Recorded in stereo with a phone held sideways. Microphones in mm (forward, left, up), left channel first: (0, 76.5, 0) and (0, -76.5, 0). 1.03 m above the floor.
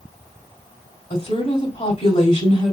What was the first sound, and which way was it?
A woman speaking, 45° left (ahead or behind).